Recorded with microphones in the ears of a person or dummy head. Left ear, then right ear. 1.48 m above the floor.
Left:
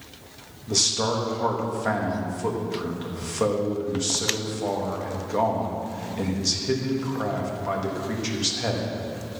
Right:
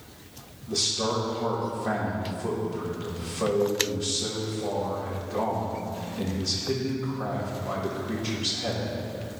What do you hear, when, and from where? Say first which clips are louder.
0.7 s a man speaking: left 3 dB; 80° left, 2 m